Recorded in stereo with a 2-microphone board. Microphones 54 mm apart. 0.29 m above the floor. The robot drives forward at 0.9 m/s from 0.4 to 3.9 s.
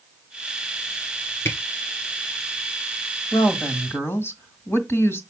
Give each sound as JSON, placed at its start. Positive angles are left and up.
{"t": 1.4, "sound": "a camera shutter", "side_deg": 55, "distance_m": 2.5}
{"t": 3.3, "sound": "a woman speaking", "side_deg": 50, "distance_m": 2.0}